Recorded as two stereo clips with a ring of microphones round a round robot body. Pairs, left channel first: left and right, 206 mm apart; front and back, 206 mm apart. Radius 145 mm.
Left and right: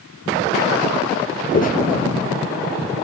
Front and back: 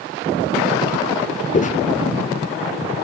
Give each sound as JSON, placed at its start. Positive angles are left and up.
{"t": 1.5, "sound": "footsteps", "azimuth_deg": 45, "distance_m": 0.7}